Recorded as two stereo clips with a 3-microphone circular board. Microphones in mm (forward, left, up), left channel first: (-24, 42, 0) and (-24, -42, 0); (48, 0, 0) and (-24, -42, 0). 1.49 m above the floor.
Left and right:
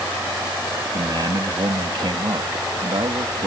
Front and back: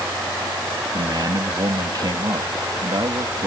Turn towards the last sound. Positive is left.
turn(degrees=-115)